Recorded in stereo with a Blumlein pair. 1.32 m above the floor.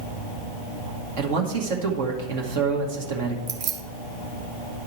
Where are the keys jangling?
40° right, 1.0 m.